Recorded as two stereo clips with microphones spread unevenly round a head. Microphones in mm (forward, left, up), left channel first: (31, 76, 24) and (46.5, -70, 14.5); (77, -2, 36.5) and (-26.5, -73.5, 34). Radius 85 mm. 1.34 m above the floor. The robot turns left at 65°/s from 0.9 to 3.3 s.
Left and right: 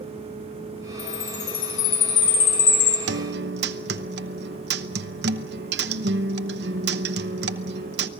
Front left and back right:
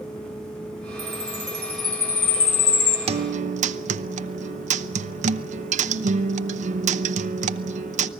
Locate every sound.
1.0 s a chime: straight behind, 3.5 m; by 3.0 s 50° left, 3.5 m
3.1 s a guitar: 105° right, 0.7 m; by 8.1 s 120° right, 0.7 m